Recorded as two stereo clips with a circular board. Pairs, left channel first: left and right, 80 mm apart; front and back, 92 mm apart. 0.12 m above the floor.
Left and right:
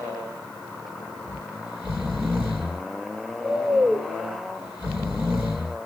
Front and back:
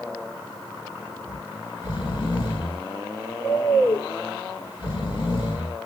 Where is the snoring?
25° right, 3 m.